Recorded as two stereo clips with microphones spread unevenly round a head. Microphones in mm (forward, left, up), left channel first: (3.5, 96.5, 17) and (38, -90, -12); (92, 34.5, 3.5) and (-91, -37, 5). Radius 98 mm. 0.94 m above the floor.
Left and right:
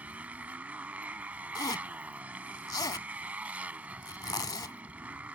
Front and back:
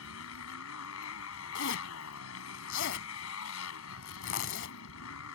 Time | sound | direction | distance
0.0 | a motorcycle | 5° left | ?
1.6 | a zipper | 35° left | ?